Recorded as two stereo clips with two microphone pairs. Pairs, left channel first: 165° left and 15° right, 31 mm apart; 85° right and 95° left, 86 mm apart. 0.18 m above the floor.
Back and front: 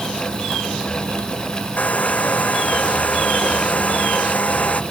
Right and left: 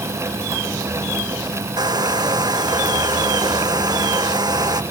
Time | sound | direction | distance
1.8 | a hair dryer | 125° left | ?